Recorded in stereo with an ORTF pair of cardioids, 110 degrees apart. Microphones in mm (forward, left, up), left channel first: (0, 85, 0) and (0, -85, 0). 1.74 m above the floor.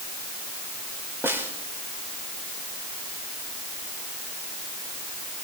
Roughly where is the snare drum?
Ahead.